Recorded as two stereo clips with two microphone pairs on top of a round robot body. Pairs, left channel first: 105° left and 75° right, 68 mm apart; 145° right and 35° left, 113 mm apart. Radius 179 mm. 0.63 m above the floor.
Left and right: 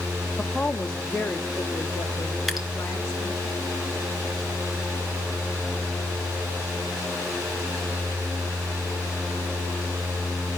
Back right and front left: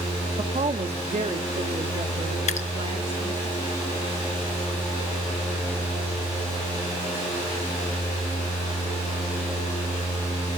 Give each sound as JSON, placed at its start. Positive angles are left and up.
{"t": 0.4, "sound": "a woman speaking", "azimuth_deg": 25, "distance_m": 1.4}
{"t": 2.5, "sound": "dripping", "azimuth_deg": -160, "distance_m": 1.8}